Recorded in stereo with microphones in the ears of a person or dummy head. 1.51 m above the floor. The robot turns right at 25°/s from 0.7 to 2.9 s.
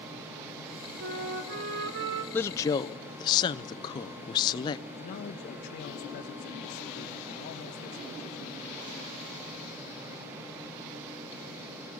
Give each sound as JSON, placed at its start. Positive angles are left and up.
{"t": 1.0, "sound": "a flute", "azimuth_deg": -110, "distance_m": 2.5}
{"t": 2.3, "sound": "a woman speaking", "side_deg": 10, "distance_m": 0.8}
{"t": 5.0, "sound": "a man speaking", "side_deg": 50, "distance_m": 1.0}